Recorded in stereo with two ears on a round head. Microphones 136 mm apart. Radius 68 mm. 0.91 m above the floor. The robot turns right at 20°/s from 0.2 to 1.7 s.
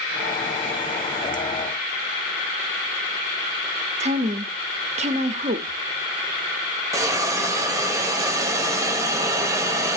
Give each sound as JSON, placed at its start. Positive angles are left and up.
{"t": 4.0, "sound": "a woman speaking", "side_deg": -45, "distance_m": 1.4}
{"t": 6.9, "sound": "a hiss", "side_deg": -20, "distance_m": 1.4}